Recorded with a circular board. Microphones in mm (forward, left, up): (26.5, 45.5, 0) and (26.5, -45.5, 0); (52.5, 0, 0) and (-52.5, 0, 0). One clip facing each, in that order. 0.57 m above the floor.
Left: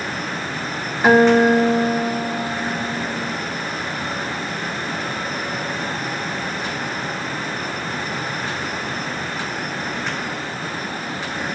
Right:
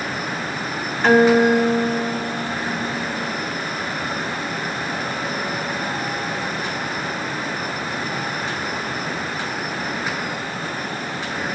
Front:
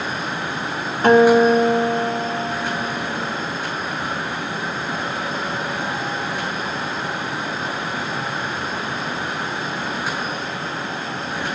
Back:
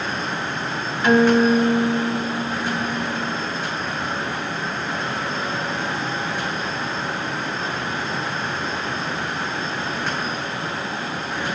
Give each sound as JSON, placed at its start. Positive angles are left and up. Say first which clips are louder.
{"t": 1.0, "sound": "a guitar", "louder": "left 1 dB, front 3 dB", "azimuth_deg": 20, "distance_m": 1.5}